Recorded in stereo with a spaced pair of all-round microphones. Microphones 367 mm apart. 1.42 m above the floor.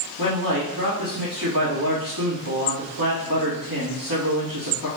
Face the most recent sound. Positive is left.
turn(degrees=-75)  # may be behind; listen again after turning